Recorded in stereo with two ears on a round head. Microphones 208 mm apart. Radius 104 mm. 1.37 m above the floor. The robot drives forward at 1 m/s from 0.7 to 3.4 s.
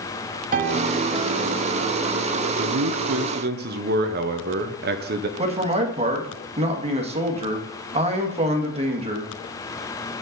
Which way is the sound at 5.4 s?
25° right (ahead or behind).